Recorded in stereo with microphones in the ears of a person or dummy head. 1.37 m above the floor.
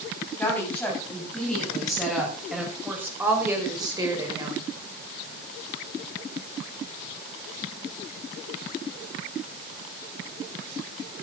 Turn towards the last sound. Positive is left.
turn(degrees=-25)  # may be behind; listen again after turning